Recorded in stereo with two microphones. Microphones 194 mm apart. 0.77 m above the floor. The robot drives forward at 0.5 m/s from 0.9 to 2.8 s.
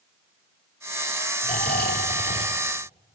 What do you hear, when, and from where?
1.4 s snoring: 50° left (ahead or behind), 1.8 m; by 2.6 s 60° left (ahead or behind), 1.5 m